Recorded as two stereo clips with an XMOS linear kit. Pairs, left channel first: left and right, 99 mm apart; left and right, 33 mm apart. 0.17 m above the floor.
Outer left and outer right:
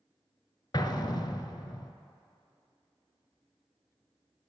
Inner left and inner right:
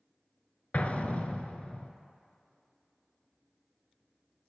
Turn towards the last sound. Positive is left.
turn(degrees=50)  # may be behind; listen again after turning